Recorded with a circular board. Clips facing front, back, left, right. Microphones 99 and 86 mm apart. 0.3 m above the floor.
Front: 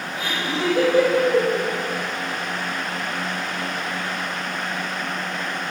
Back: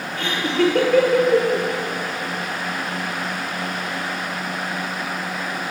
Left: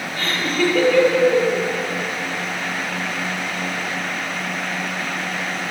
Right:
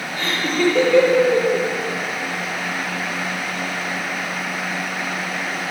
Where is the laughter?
170° right, 7 m.